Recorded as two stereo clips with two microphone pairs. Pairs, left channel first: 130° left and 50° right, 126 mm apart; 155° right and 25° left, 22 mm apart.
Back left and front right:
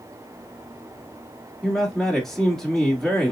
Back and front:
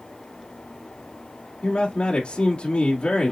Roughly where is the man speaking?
Behind right.